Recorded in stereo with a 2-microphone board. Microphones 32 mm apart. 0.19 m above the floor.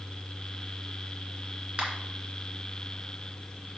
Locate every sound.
1.8 s a finger snap: 35° right (ahead or behind), 2 m